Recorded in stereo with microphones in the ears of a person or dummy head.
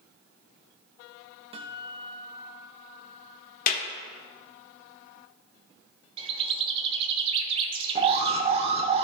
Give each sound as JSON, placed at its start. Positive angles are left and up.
{"t": 1.5, "sound": "a guitar", "side_deg": -25, "distance_m": 0.8}
{"t": 3.7, "sound": "a clap", "side_deg": 50, "distance_m": 1.2}
{"t": 6.2, "sound": "a bird", "side_deg": -30, "distance_m": 0.7}
{"t": 8.0, "sound": "an alarm", "side_deg": -30, "distance_m": 0.8}